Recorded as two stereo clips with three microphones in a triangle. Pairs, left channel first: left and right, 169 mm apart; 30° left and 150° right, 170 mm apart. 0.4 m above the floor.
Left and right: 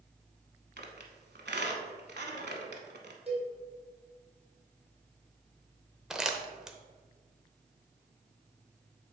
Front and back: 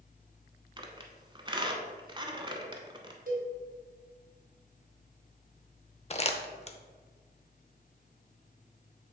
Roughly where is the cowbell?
Behind right.